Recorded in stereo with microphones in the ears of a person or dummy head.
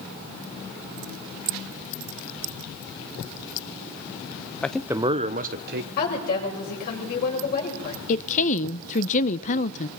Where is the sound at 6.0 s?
65° left (ahead or behind), 6.5 m.